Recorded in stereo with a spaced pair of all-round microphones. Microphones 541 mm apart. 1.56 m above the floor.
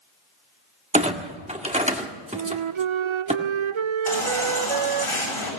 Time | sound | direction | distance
0.9 | a clunk | 10° right (ahead or behind) | 1.6 m
2.3 | a flute | 65° right (ahead or behind) | 0.5 m
4.1 | a baby crying | 85° left | 7.5 m